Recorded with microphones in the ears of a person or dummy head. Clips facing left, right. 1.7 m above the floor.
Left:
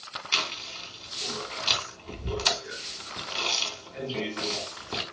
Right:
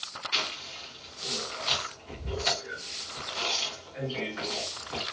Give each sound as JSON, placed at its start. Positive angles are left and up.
{"t": 0.3, "sound": "chewing", "side_deg": 60, "distance_m": 3.0}